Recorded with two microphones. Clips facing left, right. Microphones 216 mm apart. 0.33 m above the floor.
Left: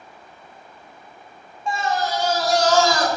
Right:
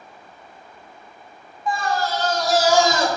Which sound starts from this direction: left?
A scream, at 1.7 s.